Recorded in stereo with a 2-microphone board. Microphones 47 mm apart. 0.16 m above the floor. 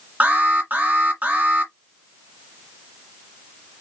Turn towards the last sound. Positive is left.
turn(degrees=-40)  # may be behind; listen again after turning